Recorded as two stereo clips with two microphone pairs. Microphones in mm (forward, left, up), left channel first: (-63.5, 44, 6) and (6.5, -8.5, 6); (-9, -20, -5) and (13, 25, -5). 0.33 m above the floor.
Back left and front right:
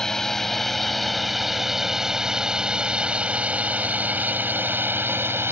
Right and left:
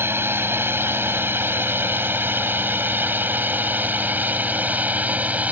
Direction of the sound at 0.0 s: 60° left.